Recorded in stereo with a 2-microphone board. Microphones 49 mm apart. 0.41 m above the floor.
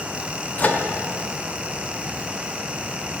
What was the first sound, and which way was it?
A microwave, 35° left (ahead or behind).